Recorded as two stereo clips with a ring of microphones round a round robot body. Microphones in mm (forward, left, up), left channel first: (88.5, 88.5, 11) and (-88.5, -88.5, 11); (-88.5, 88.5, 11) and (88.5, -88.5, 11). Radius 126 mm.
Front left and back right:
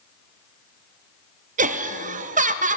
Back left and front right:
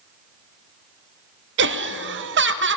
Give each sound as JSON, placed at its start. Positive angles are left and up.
{"t": 1.6, "sound": "laughter", "azimuth_deg": -80, "distance_m": 0.6}